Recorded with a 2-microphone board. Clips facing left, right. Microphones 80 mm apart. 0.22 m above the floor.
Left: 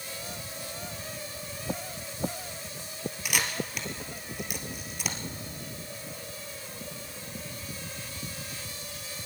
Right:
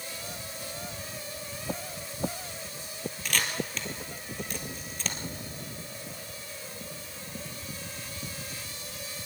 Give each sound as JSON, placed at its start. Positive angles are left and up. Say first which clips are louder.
{"t": 3.2, "sound": "a camera shutter", "louder": "even", "side_deg": 10, "distance_m": 2.5}